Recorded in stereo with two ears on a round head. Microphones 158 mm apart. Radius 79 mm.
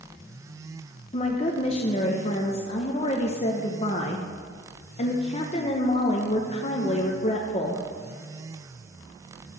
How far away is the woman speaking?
About 0.6 m.